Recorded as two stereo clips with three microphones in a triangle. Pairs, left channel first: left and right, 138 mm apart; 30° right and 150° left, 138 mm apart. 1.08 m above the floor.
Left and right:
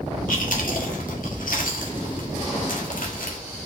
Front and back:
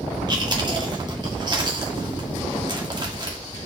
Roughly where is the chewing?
Left.